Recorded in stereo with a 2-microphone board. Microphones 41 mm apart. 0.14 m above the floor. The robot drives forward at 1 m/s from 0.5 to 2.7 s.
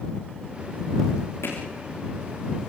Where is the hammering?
85° left, 5 m.